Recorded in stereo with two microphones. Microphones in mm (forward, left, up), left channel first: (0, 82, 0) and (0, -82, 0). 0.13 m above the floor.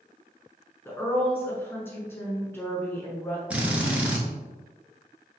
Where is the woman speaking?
15° left (ahead or behind), 1.0 m.